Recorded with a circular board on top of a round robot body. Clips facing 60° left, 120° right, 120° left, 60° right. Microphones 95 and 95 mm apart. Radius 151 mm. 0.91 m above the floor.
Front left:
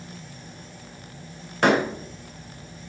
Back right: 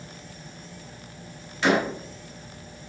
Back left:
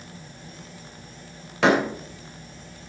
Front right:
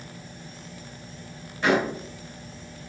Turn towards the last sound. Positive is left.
turn(degrees=105)